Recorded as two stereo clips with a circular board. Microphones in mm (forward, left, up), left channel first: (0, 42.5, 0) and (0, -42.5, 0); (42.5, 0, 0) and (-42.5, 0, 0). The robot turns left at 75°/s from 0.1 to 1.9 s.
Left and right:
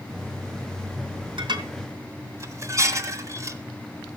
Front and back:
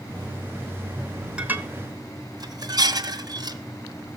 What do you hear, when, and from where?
1.4 s dishes clattering: 105° right, 1.7 m; by 3.6 s 140° right, 1.7 m